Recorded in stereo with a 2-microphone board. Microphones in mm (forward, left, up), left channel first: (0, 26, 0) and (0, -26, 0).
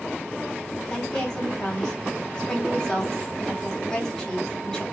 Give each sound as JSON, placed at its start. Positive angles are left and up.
{"t": 0.9, "sound": "a woman speaking", "side_deg": 15, "distance_m": 1.6}